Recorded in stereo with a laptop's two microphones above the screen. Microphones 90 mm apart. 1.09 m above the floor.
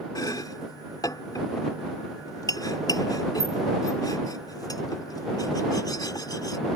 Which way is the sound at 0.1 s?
45° left (ahead or behind).